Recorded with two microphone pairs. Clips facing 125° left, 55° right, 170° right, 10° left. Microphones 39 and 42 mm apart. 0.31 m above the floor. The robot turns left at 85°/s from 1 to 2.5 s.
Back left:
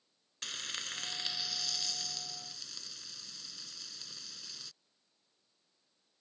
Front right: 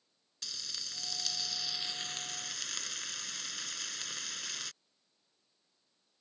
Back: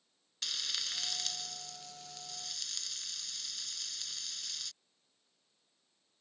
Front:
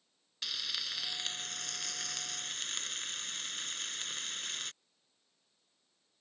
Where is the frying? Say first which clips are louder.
Back left 4 dB, front 1 dB; 90° left; by 4.7 s 40° right.